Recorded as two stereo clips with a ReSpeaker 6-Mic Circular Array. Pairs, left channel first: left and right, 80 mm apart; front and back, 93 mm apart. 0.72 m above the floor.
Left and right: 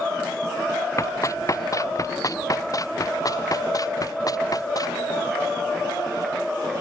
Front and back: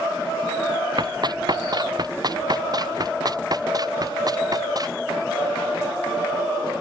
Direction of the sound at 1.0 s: 140° left.